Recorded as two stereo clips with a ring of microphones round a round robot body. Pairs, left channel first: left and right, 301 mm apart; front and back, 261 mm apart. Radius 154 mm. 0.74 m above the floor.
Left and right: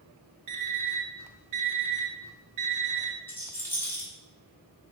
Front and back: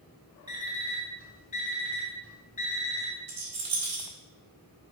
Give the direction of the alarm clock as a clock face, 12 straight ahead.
2 o'clock.